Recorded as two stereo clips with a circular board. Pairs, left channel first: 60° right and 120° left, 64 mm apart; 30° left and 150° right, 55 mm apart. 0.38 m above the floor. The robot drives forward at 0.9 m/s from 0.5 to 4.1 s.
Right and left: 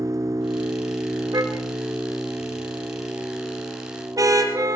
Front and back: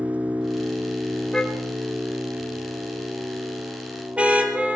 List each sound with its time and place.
0.0 s an engine running: 145° left, 1.1 m; by 4.8 s 170° left, 4 m
1.3 s a car horn: 100° left, 2.5 m; by 4.8 s 140° left, 4 m